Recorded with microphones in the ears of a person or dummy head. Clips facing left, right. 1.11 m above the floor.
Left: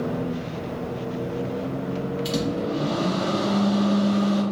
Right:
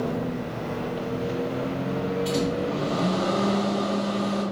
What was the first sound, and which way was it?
A microwave, 50° left (ahead or behind).